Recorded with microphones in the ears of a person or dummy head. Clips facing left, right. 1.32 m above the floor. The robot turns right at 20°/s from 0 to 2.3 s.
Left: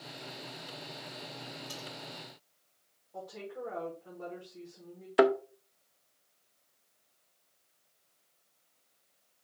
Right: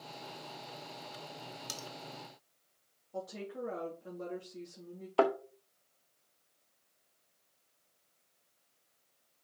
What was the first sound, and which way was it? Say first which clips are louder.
Cutlery clinking: left 2 dB; 70° right (ahead or behind).